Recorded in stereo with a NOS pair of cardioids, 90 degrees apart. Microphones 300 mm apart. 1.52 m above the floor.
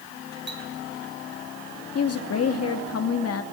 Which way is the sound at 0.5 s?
35° right.